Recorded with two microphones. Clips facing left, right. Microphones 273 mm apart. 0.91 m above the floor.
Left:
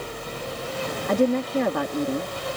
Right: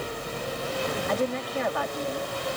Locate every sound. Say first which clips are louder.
1.1 s a woman speaking: left 11 dB; 50° left (ahead or behind)